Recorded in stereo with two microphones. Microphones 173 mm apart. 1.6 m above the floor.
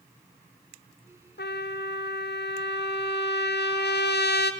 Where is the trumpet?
75° left (ahead or behind), 0.5 m.